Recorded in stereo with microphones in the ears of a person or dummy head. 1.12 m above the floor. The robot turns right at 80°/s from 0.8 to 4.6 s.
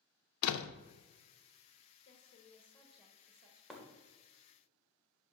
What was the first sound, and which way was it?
A door slam, 85° left.